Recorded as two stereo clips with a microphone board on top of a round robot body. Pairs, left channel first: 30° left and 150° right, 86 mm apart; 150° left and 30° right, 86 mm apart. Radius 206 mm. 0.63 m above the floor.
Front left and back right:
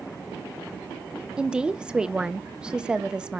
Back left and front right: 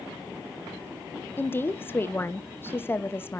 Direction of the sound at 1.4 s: 145° left.